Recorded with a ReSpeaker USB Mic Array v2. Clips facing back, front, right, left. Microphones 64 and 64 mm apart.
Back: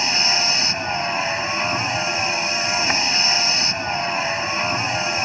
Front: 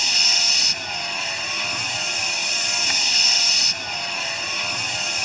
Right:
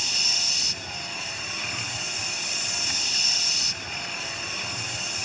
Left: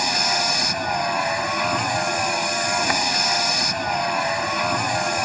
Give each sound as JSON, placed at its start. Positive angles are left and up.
{"t": 0.0, "sound": "a vehicle", "azimuth_deg": 120}